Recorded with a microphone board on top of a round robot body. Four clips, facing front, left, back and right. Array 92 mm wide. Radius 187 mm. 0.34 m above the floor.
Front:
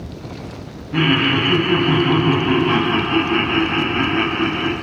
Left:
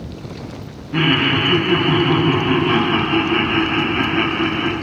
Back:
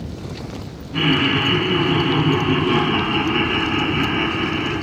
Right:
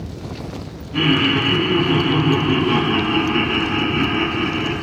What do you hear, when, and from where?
0.9 s laughter: 50° left, 4 m